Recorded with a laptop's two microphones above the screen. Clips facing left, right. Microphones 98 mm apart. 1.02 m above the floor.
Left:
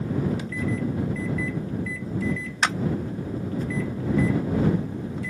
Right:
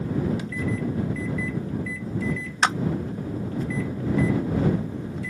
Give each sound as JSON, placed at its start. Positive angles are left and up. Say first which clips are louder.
{"t": 2.6, "sound": "a clap", "louder": "right 3 dB", "side_deg": -30}